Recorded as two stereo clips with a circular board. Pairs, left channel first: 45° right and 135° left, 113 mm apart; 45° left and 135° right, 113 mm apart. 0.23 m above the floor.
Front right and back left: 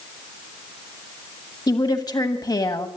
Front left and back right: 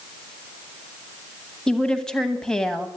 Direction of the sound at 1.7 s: 35° right.